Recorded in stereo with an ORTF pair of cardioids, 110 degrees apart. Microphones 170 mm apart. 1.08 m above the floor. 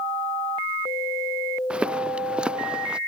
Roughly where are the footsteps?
Ahead.